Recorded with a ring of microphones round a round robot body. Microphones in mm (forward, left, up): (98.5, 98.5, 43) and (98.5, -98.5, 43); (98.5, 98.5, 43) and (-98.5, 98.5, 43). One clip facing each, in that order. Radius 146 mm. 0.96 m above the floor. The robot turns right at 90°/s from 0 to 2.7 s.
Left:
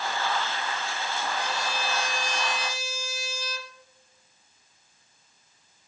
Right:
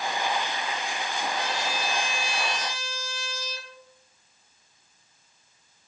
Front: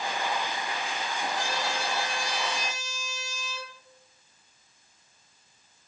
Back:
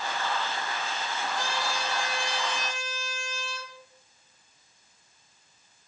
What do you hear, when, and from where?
1.4 s a trumpet: 145° right, 3.5 m; by 3.7 s 25° right, 3.5 m